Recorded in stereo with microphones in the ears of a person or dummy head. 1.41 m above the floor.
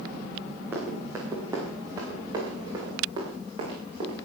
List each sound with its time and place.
0.7 s running footsteps: 15° right (ahead or behind), 5 m; by 4.2 s 30° right (ahead or behind), 8.5 m